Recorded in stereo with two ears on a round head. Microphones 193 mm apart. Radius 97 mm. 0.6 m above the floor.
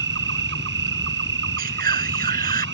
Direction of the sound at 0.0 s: 60° right (ahead or behind).